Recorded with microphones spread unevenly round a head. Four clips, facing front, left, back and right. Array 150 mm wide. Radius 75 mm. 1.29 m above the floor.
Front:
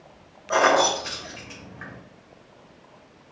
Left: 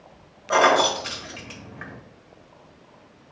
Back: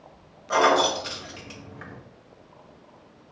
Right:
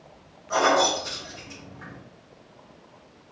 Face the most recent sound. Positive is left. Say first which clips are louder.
# left 3 dB, front 1 dB
turn(degrees=75)